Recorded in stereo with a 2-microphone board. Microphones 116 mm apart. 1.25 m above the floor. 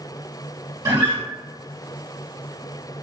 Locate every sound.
0.8 s a guitar: 30° right (ahead or behind), 1.1 m